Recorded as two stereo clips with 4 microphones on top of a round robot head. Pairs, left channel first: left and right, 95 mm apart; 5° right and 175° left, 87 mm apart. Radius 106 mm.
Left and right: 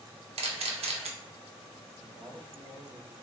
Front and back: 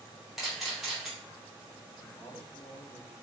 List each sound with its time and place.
0.4 s a camera shutter: 95° right, 0.6 m
2.0 s a man speaking: 55° right, 1.5 m